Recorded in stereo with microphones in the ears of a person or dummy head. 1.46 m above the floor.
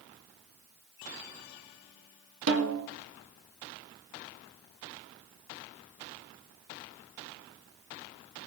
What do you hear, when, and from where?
2.5 s a snare drum: 70° right (ahead or behind), 3 m